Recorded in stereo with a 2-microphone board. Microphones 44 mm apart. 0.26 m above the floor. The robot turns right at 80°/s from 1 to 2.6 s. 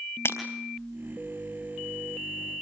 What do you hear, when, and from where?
0.2 s breaking glass: 70° left (ahead or behind), 3.5 m